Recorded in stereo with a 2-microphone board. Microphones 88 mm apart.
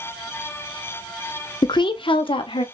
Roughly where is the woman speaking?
Left.